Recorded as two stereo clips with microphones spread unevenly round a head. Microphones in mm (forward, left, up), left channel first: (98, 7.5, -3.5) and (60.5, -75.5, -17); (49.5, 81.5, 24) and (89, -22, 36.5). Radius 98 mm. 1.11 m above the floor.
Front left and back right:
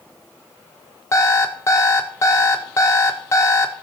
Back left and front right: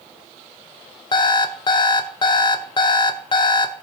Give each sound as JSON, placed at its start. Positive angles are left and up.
{"t": 1.1, "sound": "an alarm clock", "azimuth_deg": 80, "distance_m": 0.8}